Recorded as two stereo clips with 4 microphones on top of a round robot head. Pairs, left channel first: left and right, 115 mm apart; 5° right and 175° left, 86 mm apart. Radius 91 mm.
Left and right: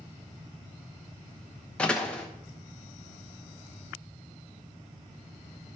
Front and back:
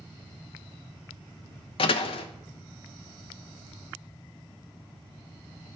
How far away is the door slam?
About 0.8 m.